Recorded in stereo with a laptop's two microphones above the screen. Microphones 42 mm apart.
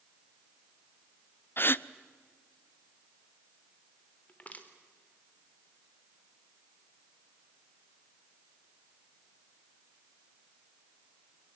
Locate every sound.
1.6 s a gasp: 55° left (ahead or behind), 0.5 m
4.3 s crushing: 35° left (ahead or behind), 3.5 m